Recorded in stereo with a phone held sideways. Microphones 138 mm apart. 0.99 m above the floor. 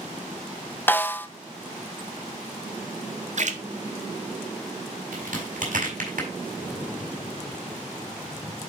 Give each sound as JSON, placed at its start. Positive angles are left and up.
{"t": 0.9, "sound": "a snare drum", "side_deg": 15, "distance_m": 0.6}
{"t": 3.4, "sound": "a splash", "side_deg": -60, "distance_m": 0.9}
{"t": 5.1, "sound": "a crack", "side_deg": -70, "distance_m": 4.5}